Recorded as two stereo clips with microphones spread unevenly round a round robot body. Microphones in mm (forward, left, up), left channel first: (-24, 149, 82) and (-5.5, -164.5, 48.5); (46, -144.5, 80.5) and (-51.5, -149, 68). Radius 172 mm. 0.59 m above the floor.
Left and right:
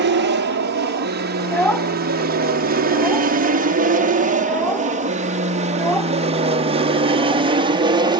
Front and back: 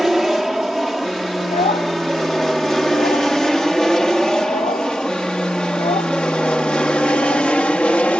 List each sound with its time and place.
0.0 s an aircraft: 95° right; by 8.2 s 65° right
1.4 s a child speaking: 10° left